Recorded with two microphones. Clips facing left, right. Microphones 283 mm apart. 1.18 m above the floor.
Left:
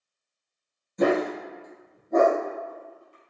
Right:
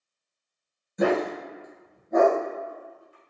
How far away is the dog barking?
About 1.8 m.